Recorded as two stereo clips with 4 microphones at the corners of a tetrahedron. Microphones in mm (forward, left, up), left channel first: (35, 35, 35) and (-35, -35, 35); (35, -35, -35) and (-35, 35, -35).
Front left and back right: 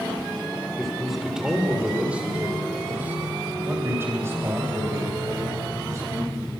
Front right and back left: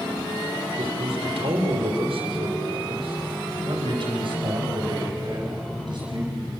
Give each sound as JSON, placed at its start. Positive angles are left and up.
{"t": 0.8, "sound": "a man speaking", "azimuth_deg": 135, "distance_m": 5.0}